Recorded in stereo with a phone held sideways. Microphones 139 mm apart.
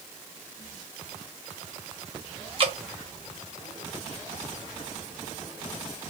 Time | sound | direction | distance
2.6 | dripping | 45° right (ahead or behind) | 1.1 m